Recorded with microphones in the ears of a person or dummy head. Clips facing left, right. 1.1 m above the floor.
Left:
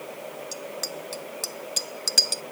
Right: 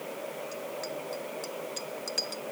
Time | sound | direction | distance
0.5 | a bicycle bell | 60° left (ahead or behind) | ?